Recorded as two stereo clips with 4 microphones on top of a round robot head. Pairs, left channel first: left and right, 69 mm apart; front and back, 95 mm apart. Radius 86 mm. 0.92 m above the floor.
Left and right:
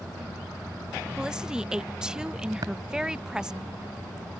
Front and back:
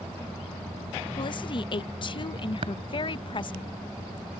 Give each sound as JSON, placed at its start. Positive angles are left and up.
{"t": 1.2, "sound": "a woman speaking", "azimuth_deg": -10}
{"t": 2.6, "sound": "tapping", "azimuth_deg": -135}